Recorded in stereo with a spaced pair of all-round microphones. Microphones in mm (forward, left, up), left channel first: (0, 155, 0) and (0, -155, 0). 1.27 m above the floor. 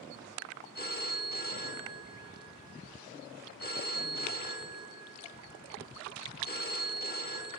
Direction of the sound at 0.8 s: 30° left (ahead or behind).